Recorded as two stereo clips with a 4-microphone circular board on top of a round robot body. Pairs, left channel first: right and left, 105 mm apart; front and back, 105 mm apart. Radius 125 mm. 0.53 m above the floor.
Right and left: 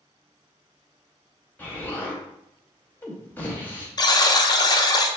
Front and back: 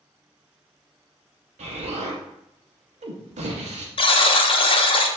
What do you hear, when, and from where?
1.6 s an explosion: 165° right, 0.7 m
4.0 s a buzzer: 40° right, 0.6 m